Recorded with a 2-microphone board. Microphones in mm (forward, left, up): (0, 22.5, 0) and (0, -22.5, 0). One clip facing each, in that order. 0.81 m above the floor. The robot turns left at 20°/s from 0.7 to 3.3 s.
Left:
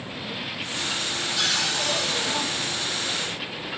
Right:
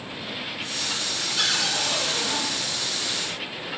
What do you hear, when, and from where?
1.4 s a cupboard door: 40° right (ahead or behind), 1.4 m; by 2.4 s 55° right (ahead or behind), 1.4 m